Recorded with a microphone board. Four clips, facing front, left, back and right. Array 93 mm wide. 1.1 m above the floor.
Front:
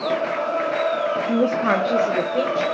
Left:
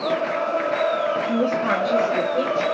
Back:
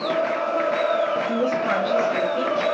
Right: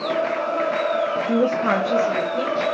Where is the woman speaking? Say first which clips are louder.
Right 4 dB, front 3 dB; 60° right, 1.0 m; by 2.6 s 10° left, 1.3 m.